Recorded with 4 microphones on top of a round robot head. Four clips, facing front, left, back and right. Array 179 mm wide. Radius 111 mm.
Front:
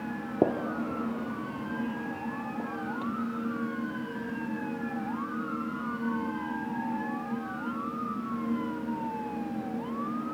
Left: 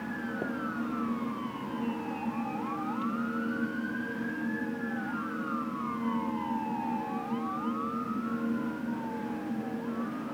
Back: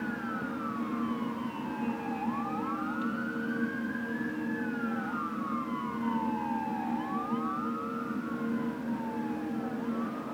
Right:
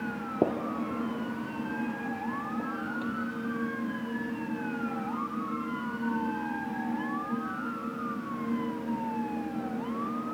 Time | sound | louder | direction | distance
0.4 | a gunshot | right 8 dB, front 7 dB | 35° right | ?